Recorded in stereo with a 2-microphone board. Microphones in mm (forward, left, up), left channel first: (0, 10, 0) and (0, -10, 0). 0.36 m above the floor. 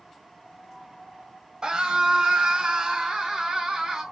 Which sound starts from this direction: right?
A scream, at 1.6 s.